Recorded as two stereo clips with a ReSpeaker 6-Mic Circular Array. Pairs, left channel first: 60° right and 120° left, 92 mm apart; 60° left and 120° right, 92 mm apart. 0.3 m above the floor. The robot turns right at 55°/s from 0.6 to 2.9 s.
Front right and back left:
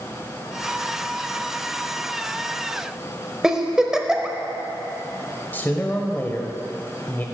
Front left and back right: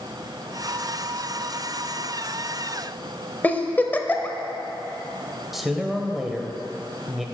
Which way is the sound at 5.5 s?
35° right.